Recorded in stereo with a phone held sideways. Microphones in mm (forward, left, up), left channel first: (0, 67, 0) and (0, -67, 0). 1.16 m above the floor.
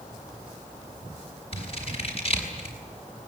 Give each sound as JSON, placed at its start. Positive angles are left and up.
{"t": 1.5, "sound": "scissors", "side_deg": 45, "distance_m": 5.5}